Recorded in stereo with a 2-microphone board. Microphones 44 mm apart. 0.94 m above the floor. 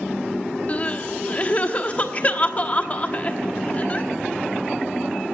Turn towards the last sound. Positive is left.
turn(degrees=35)  # may be behind; listen again after turning